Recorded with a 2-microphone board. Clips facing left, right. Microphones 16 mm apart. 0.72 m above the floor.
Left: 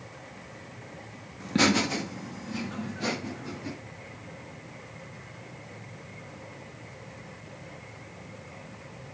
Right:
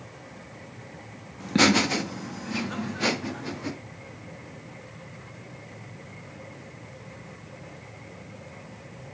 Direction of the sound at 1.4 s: 10° right (ahead or behind).